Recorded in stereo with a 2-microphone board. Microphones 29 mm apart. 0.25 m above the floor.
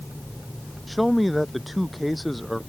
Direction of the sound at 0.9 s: Centre (ahead or behind).